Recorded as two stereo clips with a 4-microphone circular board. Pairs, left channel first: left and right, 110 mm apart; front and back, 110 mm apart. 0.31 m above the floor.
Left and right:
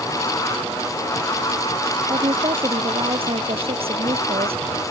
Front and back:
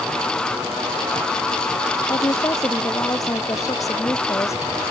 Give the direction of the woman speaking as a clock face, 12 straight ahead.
2 o'clock.